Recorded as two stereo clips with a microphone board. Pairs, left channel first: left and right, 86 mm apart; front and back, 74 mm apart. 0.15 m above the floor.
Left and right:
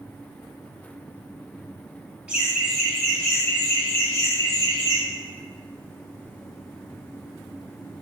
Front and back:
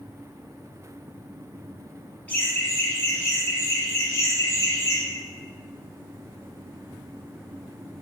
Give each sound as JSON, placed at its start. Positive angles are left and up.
{"t": 2.3, "sound": "laughter", "azimuth_deg": -30, "distance_m": 1.4}